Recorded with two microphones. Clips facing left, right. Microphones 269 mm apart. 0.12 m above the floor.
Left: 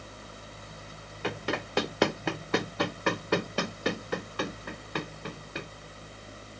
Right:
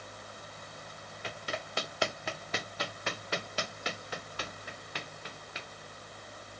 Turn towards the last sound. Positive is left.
turn(degrees=60)  # may be behind; listen again after turning